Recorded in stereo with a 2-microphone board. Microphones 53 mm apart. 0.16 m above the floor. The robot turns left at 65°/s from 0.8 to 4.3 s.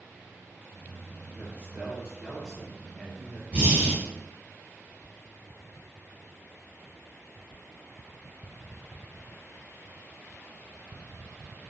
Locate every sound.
1.3 s a man speaking: 30° right (ahead or behind), 1.7 m; by 3.4 s 20° left (ahead or behind), 1.7 m
3.5 s breathing: 20° right (ahead or behind), 1.5 m; by 4.0 s 10° right (ahead or behind), 1.5 m